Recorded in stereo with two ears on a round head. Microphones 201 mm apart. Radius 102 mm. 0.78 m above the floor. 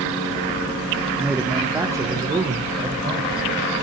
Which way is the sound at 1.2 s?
Centre (ahead or behind).